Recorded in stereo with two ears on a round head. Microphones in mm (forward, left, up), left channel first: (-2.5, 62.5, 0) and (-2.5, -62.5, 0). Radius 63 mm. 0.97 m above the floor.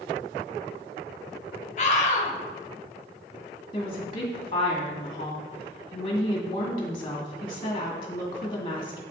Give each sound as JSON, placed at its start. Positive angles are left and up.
{"t": 1.8, "sound": "a scream", "side_deg": 50, "distance_m": 1.2}
{"t": 3.7, "sound": "a woman speaking", "side_deg": 35, "distance_m": 1.9}